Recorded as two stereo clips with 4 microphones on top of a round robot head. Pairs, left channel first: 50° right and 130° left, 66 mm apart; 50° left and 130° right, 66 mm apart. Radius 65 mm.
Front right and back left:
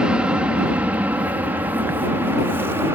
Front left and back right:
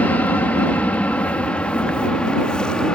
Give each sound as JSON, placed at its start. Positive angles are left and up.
{"t": 0.0, "sound": "an aircraft", "azimuth_deg": 75}